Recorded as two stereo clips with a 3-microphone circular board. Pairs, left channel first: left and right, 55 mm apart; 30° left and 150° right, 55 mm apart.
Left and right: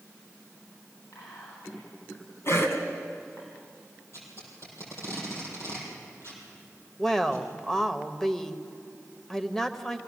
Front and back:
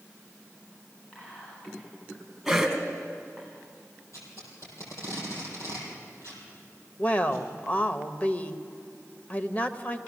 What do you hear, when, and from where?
1.1 s whispering: 85° left, 2.5 m
2.5 s a cough: 120° left, 3 m
4.1 s tape being pulled: 55° left, 6 m
7.0 s a woman speaking: 15° left, 0.9 m